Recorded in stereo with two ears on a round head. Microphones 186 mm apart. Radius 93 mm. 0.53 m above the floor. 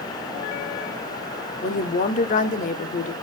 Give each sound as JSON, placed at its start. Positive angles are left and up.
{"t": 1.6, "sound": "a woman speaking", "side_deg": 40, "distance_m": 1.3}